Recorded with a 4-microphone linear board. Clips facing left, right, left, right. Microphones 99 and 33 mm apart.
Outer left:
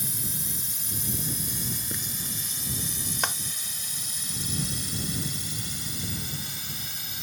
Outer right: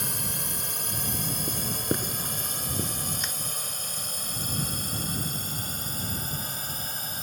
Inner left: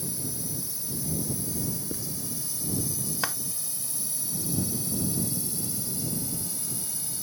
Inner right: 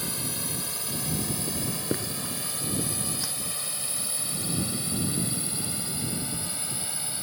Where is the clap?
75° left (ahead or behind).